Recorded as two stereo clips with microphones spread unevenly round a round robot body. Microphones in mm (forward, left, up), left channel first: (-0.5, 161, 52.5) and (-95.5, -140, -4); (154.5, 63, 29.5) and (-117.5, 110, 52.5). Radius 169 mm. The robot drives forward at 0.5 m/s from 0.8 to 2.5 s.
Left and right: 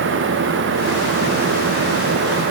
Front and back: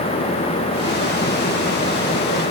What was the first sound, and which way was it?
Only background noise.